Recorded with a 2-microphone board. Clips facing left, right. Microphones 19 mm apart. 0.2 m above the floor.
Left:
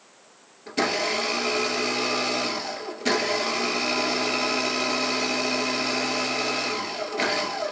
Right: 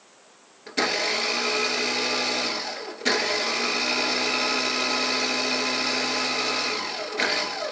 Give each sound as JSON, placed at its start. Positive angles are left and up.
{"t": 0.7, "sound": "a blender", "side_deg": -20, "distance_m": 1.4}